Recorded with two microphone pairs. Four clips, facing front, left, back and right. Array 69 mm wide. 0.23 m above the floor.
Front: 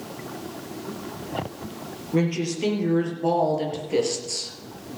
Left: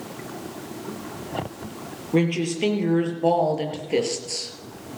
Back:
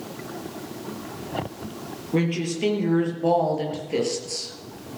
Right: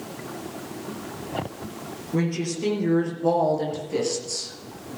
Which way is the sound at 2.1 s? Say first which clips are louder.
Left 4 dB, even; 95° left.